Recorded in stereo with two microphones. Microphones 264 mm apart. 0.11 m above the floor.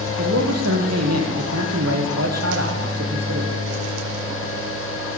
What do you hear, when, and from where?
0.2 s a man speaking: 70° right (ahead or behind), 4 m